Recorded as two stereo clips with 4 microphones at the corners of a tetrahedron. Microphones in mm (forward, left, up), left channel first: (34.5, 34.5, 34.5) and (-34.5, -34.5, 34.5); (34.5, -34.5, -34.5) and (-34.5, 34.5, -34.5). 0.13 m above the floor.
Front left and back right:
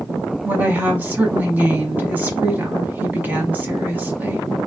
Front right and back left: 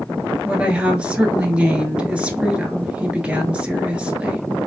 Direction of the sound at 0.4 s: 170° right.